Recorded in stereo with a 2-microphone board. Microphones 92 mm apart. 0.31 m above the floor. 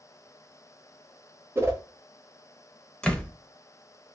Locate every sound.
1.6 s a whoosh: 30° right (ahead or behind), 0.8 m
3.0 s a door slam: 10° left (ahead or behind), 0.7 m